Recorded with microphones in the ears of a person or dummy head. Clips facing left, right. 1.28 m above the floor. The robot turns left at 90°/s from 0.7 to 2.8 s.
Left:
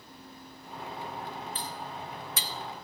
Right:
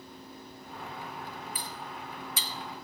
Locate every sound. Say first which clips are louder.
1.6 s cutlery clinking: left 2 dB; 15° right (ahead or behind), 0.5 m; by 2.5 s 45° left (ahead or behind), 0.5 m